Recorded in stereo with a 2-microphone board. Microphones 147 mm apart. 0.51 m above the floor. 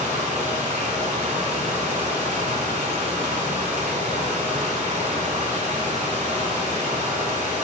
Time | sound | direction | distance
0.0 | running water | 55° right (ahead or behind) | 1.9 m